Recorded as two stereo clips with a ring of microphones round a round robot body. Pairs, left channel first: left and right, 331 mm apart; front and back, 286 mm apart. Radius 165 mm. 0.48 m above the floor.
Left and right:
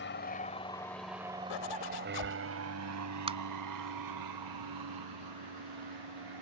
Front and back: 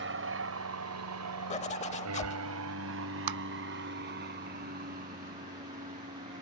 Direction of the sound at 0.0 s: 140° left.